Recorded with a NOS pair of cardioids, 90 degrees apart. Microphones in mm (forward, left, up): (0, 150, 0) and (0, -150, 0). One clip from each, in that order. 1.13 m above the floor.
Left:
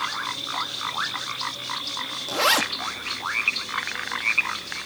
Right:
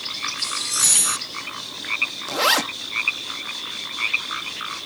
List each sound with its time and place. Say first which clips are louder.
2.3 s a zipper: even; 10° right